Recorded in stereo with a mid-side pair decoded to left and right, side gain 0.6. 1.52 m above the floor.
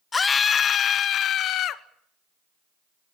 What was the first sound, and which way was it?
A scream, 20° left.